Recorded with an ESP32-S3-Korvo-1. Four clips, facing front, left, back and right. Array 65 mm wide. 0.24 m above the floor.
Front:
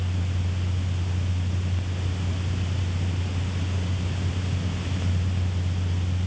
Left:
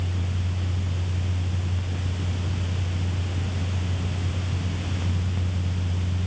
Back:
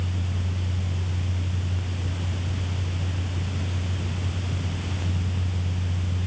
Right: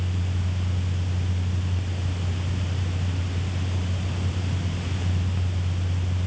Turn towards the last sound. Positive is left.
No sound to turn to.